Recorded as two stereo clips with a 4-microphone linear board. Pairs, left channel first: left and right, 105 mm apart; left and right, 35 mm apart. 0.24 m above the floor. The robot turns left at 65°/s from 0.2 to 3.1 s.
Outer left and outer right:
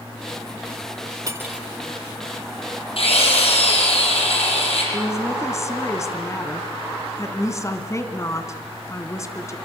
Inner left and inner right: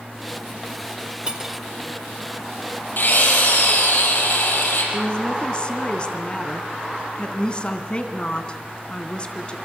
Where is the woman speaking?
30° left (ahead or behind), 2.5 m.